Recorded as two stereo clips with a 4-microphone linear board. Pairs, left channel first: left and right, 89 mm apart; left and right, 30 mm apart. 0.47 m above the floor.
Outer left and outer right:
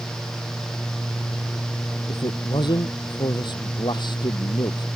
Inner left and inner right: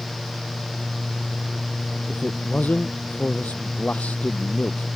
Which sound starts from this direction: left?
A man speaking, at 2.1 s.